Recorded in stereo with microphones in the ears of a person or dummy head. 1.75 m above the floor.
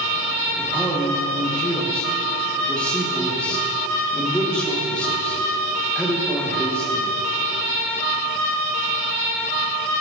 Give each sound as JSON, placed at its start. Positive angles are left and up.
{"t": 0.6, "sound": "a man speaking", "side_deg": 10, "distance_m": 2.0}